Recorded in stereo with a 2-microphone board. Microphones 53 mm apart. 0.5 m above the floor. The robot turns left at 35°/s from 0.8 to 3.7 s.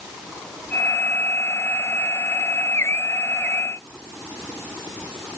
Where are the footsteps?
No footsteps in this recording.